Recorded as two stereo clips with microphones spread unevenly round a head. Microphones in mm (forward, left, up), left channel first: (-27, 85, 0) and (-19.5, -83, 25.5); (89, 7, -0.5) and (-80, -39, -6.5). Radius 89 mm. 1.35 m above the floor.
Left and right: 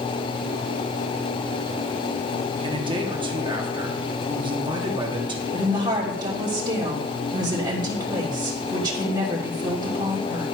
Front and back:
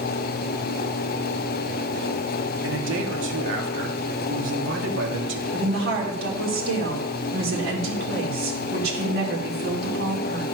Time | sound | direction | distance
2.6 | a man speaking | 150° right | 2.5 m
5.5 | a woman speaking | 155° right | 3.5 m